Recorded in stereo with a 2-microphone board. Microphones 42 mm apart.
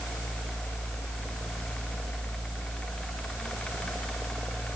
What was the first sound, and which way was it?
Only background noise.